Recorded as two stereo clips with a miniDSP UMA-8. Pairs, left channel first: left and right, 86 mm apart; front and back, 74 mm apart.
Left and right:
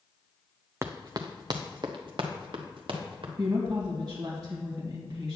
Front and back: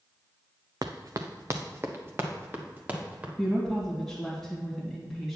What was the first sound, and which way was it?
Running footsteps, 150° right.